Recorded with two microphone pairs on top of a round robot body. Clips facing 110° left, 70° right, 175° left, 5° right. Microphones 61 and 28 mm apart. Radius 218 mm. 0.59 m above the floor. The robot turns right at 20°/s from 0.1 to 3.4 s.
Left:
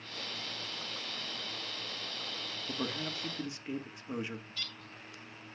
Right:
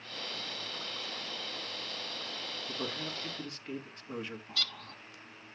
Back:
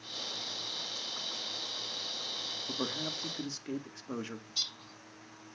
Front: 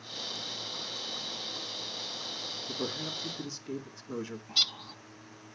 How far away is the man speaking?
About 1.9 m.